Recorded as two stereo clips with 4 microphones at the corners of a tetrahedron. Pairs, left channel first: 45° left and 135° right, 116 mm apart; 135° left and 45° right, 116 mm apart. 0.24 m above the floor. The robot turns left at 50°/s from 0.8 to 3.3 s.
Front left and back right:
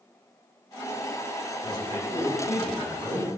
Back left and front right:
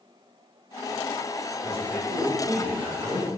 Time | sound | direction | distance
1.6 | a man speaking | 35° left | 1.8 m